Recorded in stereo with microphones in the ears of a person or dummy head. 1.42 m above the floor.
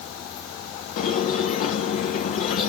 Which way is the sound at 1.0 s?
35° left (ahead or behind).